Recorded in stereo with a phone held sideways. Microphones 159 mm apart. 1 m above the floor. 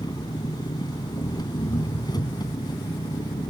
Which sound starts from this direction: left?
An engine running, at 0.0 s.